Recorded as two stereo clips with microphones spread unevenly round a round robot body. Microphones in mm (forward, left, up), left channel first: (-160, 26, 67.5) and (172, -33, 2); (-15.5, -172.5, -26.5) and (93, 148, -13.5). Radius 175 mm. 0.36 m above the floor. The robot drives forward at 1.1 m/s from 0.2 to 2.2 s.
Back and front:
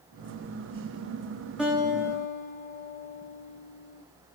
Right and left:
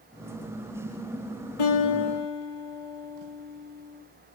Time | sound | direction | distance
1.6 | a guitar | 95° right | 9 m